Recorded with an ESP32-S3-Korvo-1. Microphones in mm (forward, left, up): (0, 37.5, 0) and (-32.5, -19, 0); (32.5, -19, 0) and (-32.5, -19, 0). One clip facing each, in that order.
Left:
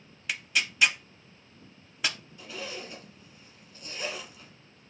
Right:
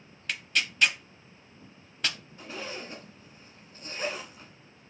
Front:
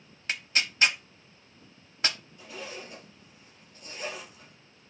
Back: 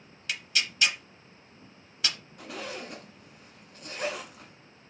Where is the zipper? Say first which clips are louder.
Right 1 dB, back 4 dB; 170° right, 1.0 m.